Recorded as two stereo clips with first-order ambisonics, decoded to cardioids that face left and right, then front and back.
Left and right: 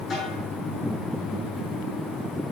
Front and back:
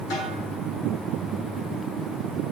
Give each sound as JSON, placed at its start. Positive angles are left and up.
{"t": 0.1, "sound": "a snare drum", "azimuth_deg": 25, "distance_m": 4.5}